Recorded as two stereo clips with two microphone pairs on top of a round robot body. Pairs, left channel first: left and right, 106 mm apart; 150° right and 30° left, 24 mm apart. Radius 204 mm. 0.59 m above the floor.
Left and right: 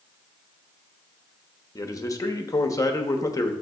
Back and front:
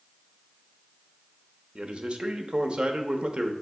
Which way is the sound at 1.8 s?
55° left.